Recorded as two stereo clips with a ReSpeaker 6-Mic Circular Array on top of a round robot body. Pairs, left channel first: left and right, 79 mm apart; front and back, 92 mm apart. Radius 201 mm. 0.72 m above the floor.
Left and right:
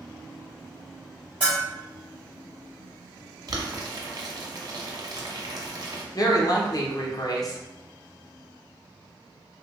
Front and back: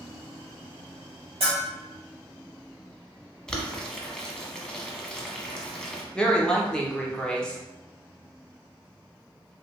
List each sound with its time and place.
1.4 s a bell: 165° right, 0.5 m
3.5 s boiling: 80° right, 1.1 m
6.2 s a woman speaking: 80° left, 1.0 m